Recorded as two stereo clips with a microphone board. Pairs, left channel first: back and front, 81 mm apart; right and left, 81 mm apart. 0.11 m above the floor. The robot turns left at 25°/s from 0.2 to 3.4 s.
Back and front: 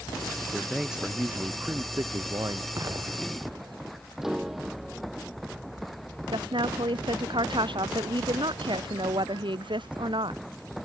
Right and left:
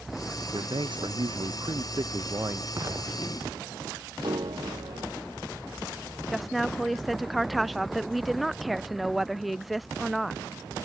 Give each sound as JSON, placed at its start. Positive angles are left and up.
{"t": 0.5, "sound": "a man speaking", "azimuth_deg": 90}
{"t": 2.8, "sound": "an explosion", "azimuth_deg": 45}
{"t": 4.2, "sound": "a piano", "azimuth_deg": 85}
{"t": 6.3, "sound": "a woman speaking", "azimuth_deg": 0}